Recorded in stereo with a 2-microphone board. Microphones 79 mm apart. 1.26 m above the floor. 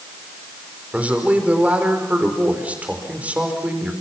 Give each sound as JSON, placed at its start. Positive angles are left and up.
{"t": 0.9, "sound": "a man speaking", "side_deg": -20, "distance_m": 5.0}